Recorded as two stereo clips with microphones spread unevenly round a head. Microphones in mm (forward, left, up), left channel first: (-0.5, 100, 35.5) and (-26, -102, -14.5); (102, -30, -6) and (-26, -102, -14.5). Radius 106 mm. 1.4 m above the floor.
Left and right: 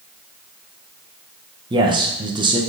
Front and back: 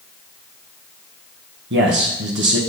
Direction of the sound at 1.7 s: 165° right.